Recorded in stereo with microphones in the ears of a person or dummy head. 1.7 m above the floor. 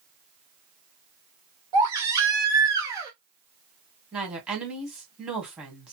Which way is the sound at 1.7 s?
15° right (ahead or behind).